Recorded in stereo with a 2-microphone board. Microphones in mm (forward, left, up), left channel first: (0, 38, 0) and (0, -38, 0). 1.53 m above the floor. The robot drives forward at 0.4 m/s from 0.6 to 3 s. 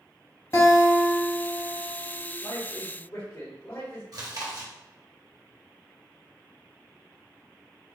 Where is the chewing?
60° right (ahead or behind), 0.8 m.